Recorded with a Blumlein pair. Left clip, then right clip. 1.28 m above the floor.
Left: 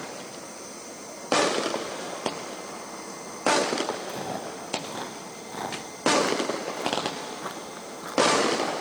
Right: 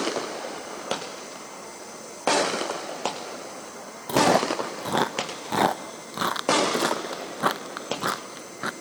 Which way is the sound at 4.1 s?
60° right.